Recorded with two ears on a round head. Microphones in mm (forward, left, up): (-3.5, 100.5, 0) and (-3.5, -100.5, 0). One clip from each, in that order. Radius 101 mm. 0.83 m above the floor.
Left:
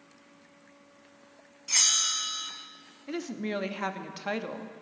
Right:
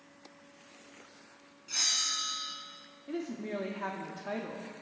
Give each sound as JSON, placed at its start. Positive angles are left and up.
{"t": 1.7, "sound": "a bell", "side_deg": 60, "distance_m": 1.2}
{"t": 3.1, "sound": "a woman speaking", "side_deg": 70, "distance_m": 0.9}